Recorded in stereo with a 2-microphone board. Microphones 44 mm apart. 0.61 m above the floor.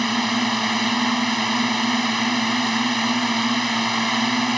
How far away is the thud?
I don't hear a thud.